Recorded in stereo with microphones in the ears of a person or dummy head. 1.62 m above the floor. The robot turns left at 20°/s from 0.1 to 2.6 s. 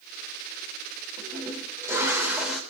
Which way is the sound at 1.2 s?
35° right (ahead or behind).